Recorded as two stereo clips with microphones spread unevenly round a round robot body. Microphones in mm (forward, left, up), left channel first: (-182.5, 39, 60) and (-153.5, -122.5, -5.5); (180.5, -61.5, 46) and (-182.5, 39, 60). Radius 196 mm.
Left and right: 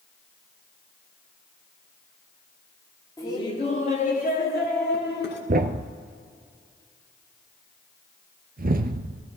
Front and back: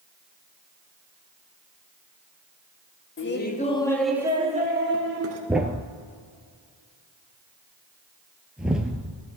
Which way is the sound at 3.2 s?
10° left.